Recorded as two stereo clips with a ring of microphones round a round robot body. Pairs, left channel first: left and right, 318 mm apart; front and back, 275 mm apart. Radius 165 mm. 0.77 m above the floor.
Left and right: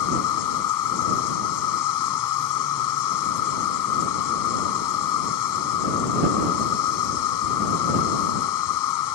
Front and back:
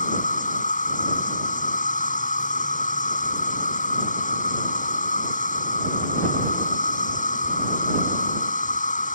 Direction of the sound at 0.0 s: 60° left.